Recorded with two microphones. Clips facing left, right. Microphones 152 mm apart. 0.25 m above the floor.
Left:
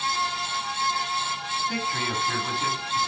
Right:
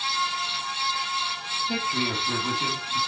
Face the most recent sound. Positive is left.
turn(degrees=-20)  # may be behind; listen again after turning